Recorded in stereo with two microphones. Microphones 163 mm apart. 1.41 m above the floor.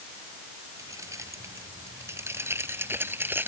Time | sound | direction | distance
0.8 | keys jangling | 20° right (ahead or behind) | ?